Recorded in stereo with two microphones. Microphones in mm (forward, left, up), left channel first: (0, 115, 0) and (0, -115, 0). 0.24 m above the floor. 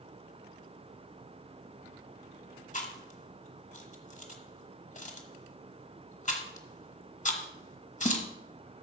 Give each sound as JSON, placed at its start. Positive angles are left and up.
{"t": 2.7, "sound": "chewing", "side_deg": 35, "distance_m": 1.2}